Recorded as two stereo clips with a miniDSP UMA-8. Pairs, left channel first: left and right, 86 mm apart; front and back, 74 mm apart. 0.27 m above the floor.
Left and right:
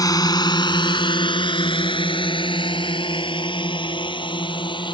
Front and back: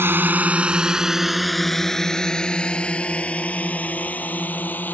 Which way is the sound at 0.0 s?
130° left.